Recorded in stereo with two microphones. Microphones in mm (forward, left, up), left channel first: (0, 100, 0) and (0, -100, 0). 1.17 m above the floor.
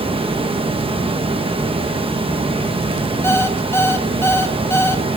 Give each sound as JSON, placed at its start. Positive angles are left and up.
{"t": 0.0, "sound": "running water", "side_deg": -25, "distance_m": 1.0}
{"t": 3.2, "sound": "an alarm clock", "side_deg": 10, "distance_m": 0.7}